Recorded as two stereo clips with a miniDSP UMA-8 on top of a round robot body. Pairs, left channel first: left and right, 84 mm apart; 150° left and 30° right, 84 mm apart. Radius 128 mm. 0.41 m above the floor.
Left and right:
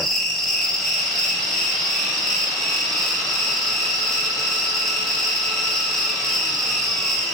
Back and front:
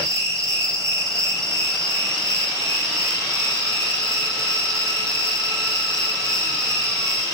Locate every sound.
0.0 s an insect: 5° left, 1.7 m